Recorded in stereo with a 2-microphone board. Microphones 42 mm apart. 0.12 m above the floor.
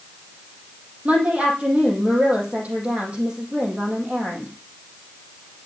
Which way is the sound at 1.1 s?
30° right (ahead or behind).